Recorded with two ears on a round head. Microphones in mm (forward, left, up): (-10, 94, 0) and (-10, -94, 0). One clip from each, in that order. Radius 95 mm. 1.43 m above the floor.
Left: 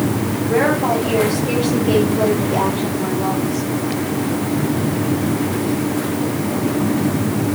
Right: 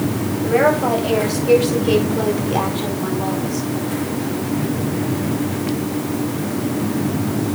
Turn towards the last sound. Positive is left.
turn(degrees=-55)  # may be behind; listen again after turning